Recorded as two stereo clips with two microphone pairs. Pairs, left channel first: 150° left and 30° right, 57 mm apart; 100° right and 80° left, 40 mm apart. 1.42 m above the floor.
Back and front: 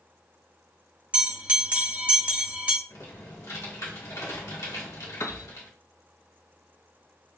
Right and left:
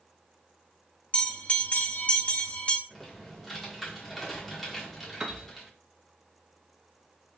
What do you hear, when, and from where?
1.1 s a bell: 85° right, 0.9 m
2.9 s typing on a keyboard: 175° left, 1.9 m
5.2 s a piano: 150° left, 0.5 m